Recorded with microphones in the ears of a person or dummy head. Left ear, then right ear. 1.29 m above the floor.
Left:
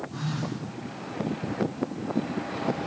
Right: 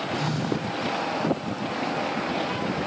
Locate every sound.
0.1 s a phone buzzing: 65° right (ahead or behind), 3.5 m